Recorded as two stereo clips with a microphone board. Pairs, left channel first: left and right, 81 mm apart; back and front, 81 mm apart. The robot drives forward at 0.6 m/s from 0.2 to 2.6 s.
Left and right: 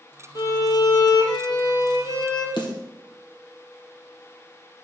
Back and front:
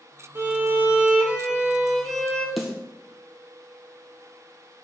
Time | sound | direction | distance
0.3 | a violin | 55° left | 1.9 m
2.6 | a snare drum | 90° left | 2.5 m